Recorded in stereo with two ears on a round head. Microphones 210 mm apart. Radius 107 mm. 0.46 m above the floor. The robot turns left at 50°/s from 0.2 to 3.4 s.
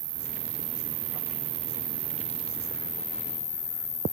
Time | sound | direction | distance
0.0 | an insect | 35° right | ?